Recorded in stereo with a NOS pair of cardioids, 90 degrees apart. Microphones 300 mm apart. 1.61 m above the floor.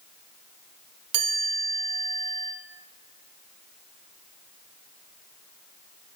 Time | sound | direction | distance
1.1 | a chime | 70° right | 0.7 m